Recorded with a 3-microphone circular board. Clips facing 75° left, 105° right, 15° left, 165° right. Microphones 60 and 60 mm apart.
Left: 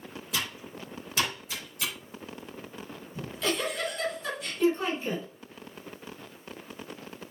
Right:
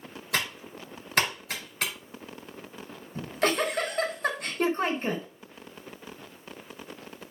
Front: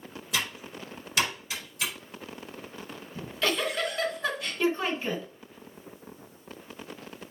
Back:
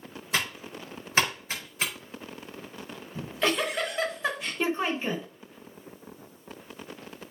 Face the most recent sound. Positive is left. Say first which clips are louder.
# right 4 dB, back 2 dB
turn(degrees=-100)